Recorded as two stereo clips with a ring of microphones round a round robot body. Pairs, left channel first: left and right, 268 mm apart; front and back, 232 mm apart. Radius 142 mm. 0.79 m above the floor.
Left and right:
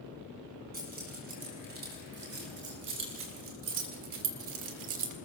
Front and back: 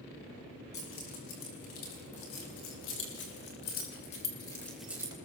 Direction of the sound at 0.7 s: 30° right.